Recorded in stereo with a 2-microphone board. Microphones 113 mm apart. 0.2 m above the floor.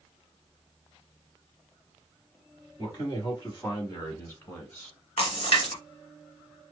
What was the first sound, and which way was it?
A man speaking, 40° left (ahead or behind).